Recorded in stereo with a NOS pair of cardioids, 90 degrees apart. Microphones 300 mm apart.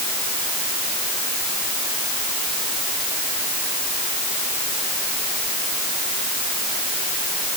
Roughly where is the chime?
No chime in this recording.